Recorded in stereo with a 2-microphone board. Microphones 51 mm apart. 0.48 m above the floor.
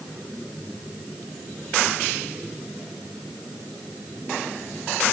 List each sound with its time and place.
Only background noise.